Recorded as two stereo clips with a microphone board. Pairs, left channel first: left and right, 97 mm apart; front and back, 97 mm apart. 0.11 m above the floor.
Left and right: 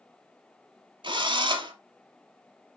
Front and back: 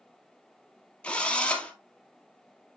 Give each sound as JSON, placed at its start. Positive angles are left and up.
{"t": 1.0, "sound": "a drill", "azimuth_deg": -75, "distance_m": 1.1}